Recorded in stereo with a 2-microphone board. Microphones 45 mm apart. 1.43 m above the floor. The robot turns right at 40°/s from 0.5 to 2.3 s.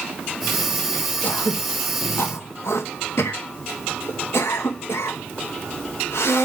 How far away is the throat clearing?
About 1.6 m.